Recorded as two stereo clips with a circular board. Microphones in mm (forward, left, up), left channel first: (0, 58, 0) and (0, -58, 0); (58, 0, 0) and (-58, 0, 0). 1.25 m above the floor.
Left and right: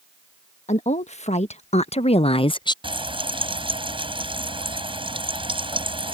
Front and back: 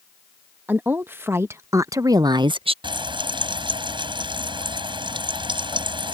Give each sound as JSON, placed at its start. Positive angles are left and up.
{"t": 0.7, "sound": "a woman speaking", "azimuth_deg": 105}
{"t": 2.8, "sound": "frying", "azimuth_deg": -130}